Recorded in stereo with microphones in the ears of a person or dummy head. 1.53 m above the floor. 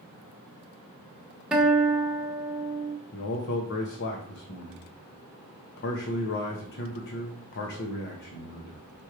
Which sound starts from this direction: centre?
A guitar, at 1.5 s.